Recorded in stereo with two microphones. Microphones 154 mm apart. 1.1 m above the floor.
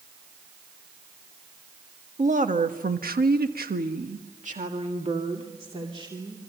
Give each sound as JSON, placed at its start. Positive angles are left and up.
{"t": 2.2, "sound": "a woman speaking", "side_deg": -50, "distance_m": 1.6}